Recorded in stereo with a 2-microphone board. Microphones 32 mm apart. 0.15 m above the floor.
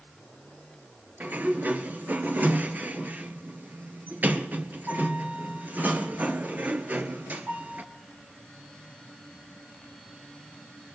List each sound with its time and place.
1.2 s a sliding door: 60° right (ahead or behind), 1.4 m